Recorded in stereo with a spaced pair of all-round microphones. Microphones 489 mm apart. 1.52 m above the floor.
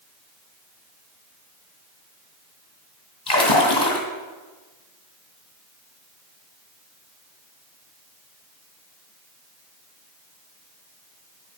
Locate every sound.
3.3 s a splash: 55° left (ahead or behind), 2.5 m